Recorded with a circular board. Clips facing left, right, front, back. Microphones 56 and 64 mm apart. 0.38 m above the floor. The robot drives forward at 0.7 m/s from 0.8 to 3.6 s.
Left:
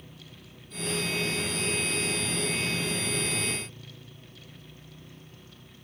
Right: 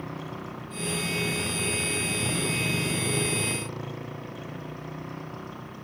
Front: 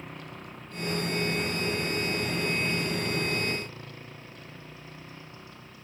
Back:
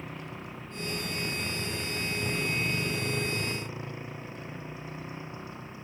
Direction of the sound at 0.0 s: 95° right.